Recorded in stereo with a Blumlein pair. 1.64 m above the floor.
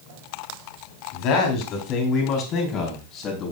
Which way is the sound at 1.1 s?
40° left.